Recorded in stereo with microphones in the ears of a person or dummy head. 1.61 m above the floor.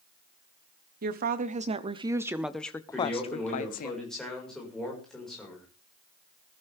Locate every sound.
1.0 s a woman speaking: 55° right (ahead or behind), 1.1 m; by 3.9 s 50° left (ahead or behind), 1.1 m
2.9 s a man speaking: centre (ahead or behind), 5 m